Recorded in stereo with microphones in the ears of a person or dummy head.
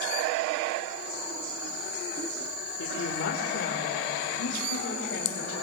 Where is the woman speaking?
70° left (ahead or behind), 1.4 m; by 5.5 s 75° left (ahead or behind), 3 m.